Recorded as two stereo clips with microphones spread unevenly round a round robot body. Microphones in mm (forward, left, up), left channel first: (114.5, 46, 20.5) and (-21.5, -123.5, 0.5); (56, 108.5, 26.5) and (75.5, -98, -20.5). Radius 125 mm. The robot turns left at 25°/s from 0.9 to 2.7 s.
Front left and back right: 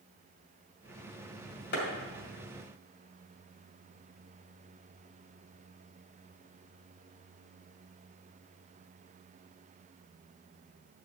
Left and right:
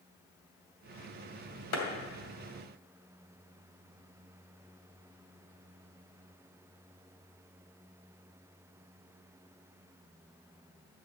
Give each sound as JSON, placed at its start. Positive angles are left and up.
{"t": 1.7, "sound": "a clap", "azimuth_deg": 100, "distance_m": 2.5}